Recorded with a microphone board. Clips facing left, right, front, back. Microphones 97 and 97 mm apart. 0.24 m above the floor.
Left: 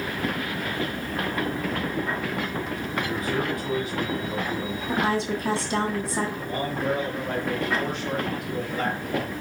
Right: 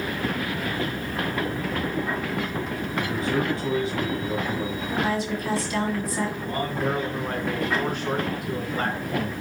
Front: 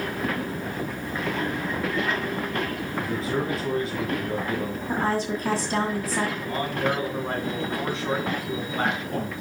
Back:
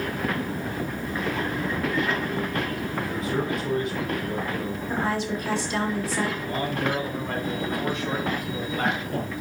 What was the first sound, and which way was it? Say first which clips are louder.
A man speaking: right 3 dB, front 1 dB; 40° right.